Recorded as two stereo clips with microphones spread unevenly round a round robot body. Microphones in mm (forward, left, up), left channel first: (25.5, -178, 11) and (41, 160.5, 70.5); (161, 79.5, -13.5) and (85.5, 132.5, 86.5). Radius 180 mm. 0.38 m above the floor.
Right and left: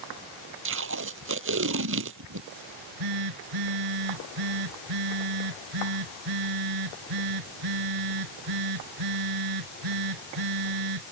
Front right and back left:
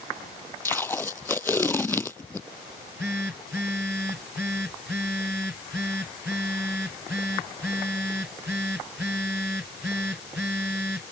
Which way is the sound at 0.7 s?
35° left.